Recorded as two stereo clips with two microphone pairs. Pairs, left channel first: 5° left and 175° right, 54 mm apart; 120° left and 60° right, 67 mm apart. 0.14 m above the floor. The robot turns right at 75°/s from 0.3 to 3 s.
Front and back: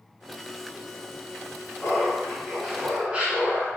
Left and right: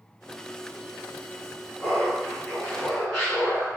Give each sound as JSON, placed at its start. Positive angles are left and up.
{"t": 1.8, "sound": "laughter", "azimuth_deg": 85, "distance_m": 1.5}